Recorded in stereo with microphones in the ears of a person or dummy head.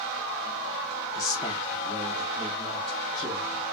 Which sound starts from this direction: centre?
A man speaking, at 1.1 s.